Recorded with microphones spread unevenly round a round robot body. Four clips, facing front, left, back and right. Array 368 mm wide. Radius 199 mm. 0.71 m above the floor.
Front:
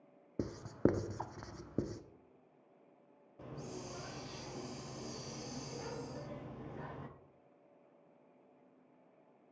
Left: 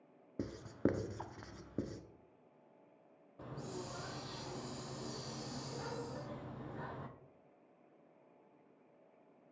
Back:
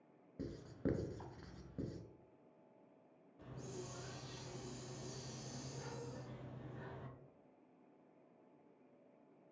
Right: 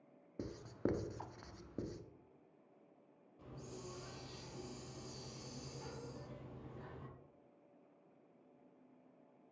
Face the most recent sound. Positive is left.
turn(degrees=45)